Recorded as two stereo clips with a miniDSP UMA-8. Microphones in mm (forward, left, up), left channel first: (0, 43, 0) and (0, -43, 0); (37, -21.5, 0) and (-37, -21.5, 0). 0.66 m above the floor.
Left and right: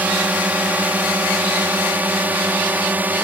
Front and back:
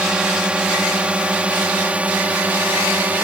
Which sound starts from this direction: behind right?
A drone, at 0.0 s.